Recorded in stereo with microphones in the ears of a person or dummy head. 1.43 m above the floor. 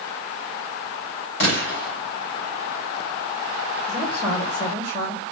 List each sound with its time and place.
1.4 s a gunshot: 70° left (ahead or behind), 4 m
3.9 s a woman speaking: 55° left (ahead or behind), 4 m